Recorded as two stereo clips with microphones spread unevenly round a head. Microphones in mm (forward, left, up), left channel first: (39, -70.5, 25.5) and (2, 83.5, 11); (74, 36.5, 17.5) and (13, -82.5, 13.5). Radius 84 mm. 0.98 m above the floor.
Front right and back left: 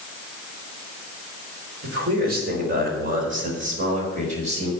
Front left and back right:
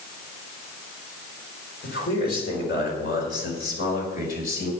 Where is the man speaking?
85° left, 4 m; by 4.7 s 55° left, 5.5 m.